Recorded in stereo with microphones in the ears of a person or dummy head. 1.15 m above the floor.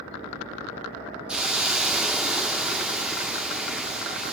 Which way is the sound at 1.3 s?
5° right (ahead or behind).